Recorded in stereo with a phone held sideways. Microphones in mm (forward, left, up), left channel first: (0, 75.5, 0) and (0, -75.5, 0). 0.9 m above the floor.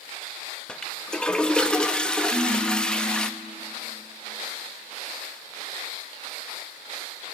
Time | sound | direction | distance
0.7 | a toilet flushing | 5° left (ahead or behind) | 0.8 m
2.3 | a ringtone | 80° right | 3.5 m